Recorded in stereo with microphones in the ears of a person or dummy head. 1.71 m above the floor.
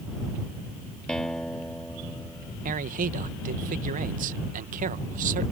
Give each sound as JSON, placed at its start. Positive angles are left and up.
{"t": 1.1, "sound": "a guitar", "side_deg": 0}
{"t": 2.6, "sound": "a man speaking", "side_deg": -40}